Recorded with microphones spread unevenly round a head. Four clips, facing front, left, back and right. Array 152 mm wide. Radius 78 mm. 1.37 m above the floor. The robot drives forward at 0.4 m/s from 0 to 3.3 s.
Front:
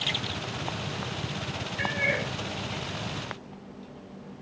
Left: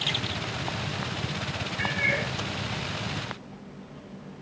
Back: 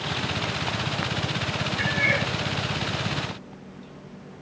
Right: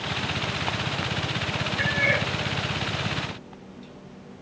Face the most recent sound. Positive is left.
turn(degrees=-85)